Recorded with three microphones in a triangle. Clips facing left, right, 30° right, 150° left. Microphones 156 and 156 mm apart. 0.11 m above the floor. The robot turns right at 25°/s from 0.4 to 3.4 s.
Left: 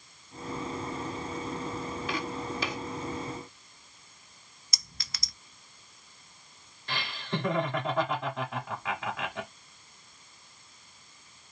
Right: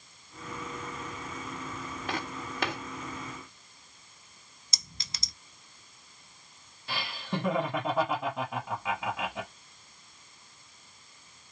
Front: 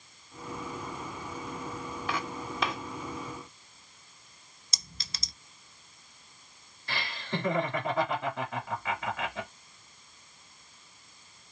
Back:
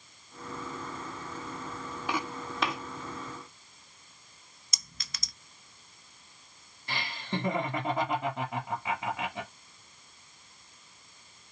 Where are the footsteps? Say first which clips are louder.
Even, back 2 dB; 130° right, 1.6 m; by 2.8 s 115° right, 1.6 m.